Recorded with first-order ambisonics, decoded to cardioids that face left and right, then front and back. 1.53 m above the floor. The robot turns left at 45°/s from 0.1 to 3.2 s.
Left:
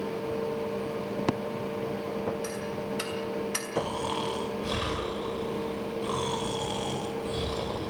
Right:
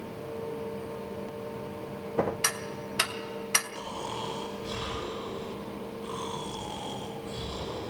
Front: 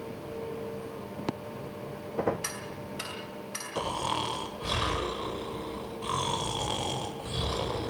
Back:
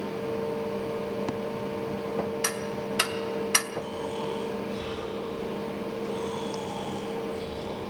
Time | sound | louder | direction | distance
2.4 | ticking | right 1 dB, back 7 dB | 115° right | 2 m
3.8 | snoring | left 5 dB, front 2 dB | 20° left | 7 m